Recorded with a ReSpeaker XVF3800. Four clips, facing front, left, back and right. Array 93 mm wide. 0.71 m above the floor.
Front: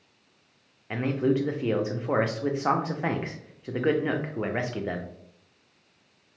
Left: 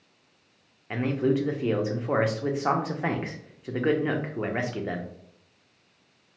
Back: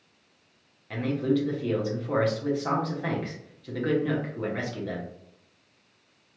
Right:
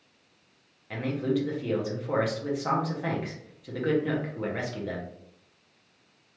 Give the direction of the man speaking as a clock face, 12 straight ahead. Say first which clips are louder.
Left 3 dB, front 1 dB; 11 o'clock.